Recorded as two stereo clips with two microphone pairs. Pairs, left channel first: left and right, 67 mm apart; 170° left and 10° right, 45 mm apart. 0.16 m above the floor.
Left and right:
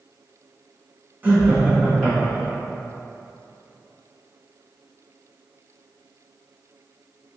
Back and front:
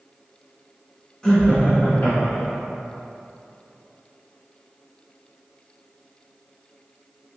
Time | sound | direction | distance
1.2 | laughter | 125° right | 1.1 m